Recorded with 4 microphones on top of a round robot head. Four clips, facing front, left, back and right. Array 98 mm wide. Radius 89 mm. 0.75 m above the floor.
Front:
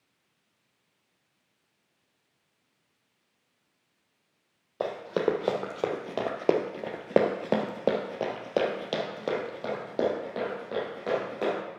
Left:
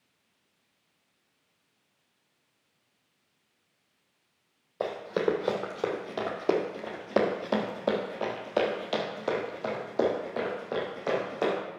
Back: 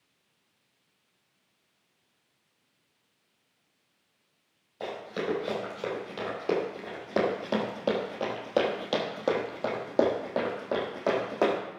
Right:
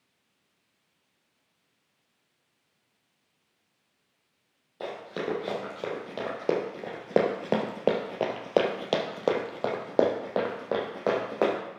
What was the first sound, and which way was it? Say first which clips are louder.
Running footsteps: left 5 dB, front 6 dB; 20° left.